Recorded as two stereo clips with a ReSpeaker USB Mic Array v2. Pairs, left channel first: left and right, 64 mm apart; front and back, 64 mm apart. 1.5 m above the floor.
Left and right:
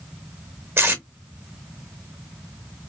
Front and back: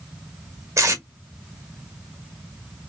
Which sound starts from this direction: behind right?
Tape being pulled, at 0.8 s.